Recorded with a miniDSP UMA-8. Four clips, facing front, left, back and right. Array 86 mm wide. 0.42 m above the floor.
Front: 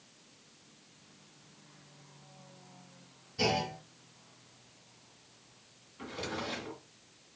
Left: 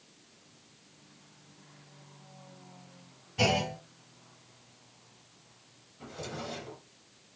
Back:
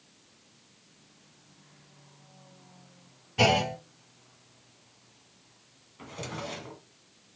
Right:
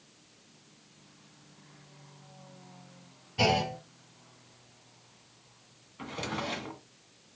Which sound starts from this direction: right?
A drawer, at 6.0 s.